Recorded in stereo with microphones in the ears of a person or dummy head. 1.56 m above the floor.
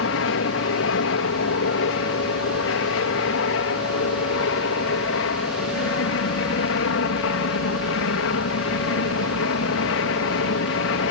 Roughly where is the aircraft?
Left.